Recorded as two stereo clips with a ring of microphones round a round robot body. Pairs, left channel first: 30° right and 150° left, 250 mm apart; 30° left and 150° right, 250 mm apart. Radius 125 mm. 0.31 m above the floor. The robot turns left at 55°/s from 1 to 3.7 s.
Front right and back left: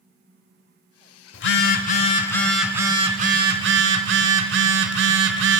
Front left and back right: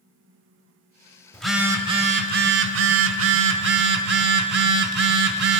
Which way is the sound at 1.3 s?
55° right.